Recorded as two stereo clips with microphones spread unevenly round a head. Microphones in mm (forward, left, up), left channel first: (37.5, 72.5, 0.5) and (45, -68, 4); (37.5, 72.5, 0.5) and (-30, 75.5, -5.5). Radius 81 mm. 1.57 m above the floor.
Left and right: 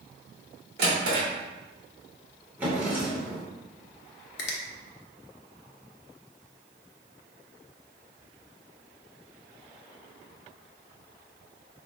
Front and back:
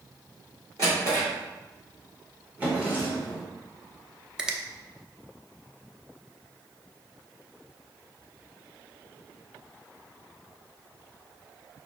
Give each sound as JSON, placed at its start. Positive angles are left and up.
{"t": 0.8, "sound": "a drawer", "azimuth_deg": -120, "distance_m": 1.8}
{"t": 2.6, "sound": "a drawer", "azimuth_deg": -140, "distance_m": 1.3}
{"t": 4.4, "sound": "a finger snap", "azimuth_deg": 95, "distance_m": 0.8}